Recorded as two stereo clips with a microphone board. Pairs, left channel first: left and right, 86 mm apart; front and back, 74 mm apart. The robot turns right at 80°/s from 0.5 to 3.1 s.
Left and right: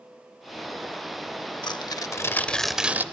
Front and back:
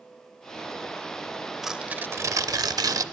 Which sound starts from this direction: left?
Tearing paper, at 1.6 s.